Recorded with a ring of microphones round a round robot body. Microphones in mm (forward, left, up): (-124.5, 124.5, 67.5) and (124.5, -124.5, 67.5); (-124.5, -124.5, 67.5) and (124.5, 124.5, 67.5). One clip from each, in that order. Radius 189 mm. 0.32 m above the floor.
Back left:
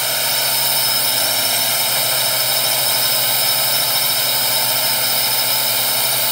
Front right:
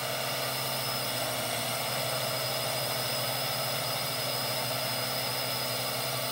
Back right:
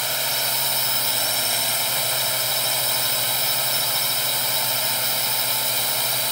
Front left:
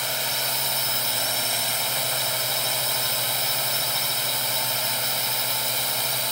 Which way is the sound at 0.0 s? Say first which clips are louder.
Back left 13 dB, back right 2 dB; 145° left.